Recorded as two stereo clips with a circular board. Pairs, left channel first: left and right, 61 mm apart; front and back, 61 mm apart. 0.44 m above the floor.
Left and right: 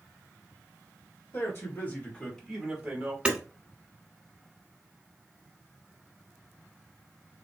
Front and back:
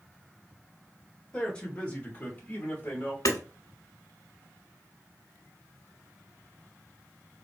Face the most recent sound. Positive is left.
turn(degrees=-15)